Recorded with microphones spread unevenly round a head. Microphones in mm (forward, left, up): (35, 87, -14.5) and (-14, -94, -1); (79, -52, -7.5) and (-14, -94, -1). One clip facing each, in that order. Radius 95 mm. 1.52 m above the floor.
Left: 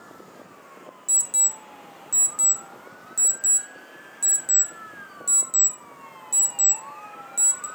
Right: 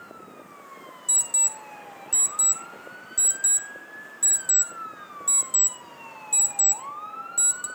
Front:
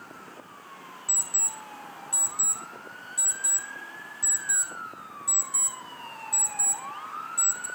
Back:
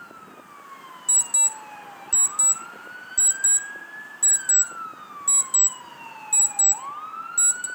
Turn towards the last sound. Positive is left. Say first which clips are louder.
# right 1 dB, back 3 dB
turn(degrees=140)